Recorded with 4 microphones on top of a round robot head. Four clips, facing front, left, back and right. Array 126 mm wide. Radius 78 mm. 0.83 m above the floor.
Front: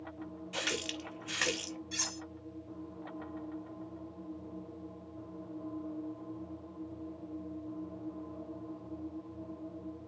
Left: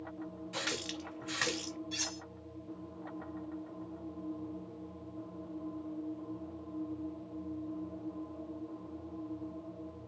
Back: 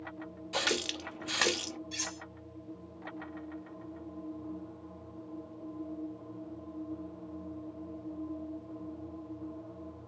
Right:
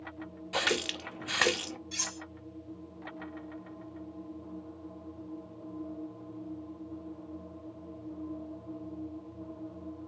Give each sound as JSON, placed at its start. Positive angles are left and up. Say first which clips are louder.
{"t": 0.5, "sound": "a running tap", "louder": "right 9 dB, back 5 dB", "azimuth_deg": -115, "distance_m": 0.6}
{"t": 1.9, "sound": "cutlery clinking", "louder": "even, even", "azimuth_deg": -30, "distance_m": 1.9}